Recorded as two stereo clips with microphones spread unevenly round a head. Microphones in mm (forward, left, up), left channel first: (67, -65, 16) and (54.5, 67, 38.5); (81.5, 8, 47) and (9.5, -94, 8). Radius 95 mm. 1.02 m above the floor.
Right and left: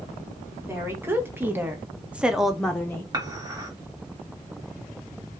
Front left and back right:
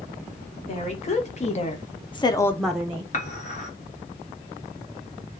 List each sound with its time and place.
0.7 s a woman speaking: 20° left, 1.7 m; by 3.0 s 145° right, 0.7 m
3.1 s dishes clattering: 30° left, 1.6 m